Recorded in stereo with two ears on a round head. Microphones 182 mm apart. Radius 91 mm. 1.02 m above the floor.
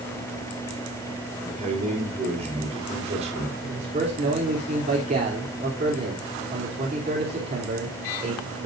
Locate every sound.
1.4 s a man speaking: 30° right (ahead or behind), 4 m
3.6 s a man speaking: 35° right (ahead or behind), 3 m